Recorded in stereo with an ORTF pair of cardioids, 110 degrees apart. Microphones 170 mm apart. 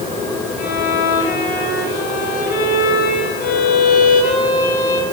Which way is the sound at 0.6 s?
60° left.